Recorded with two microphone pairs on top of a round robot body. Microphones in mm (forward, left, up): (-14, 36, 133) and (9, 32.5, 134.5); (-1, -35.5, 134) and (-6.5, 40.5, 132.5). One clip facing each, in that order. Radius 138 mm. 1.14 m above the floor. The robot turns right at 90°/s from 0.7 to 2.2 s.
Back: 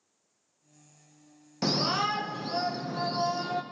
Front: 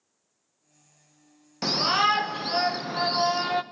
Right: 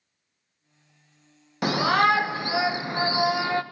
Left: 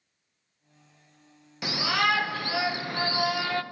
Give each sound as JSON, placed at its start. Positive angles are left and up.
{"t": 1.6, "sound": "a shout", "azimuth_deg": -75, "distance_m": 0.7}